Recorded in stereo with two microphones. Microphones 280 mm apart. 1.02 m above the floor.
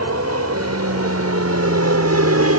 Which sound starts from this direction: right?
An aircraft, at 0.0 s.